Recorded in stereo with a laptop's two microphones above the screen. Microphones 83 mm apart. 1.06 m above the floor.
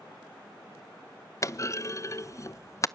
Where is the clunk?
35° left (ahead or behind), 0.6 m.